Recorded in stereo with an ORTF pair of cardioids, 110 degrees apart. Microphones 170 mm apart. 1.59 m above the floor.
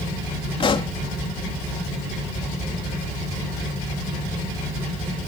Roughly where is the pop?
Ahead left.